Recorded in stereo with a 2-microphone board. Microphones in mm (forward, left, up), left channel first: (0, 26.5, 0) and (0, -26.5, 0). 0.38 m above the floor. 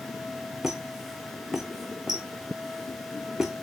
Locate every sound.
0.6 s a squeak: 5° right (ahead or behind), 1.5 m